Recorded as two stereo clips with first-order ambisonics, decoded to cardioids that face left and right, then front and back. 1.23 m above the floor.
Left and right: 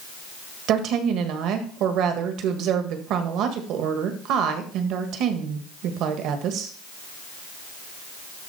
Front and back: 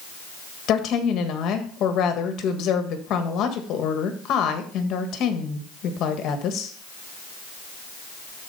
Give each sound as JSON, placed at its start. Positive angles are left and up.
{"t": 0.7, "sound": "a woman speaking", "azimuth_deg": -50, "distance_m": 1.4}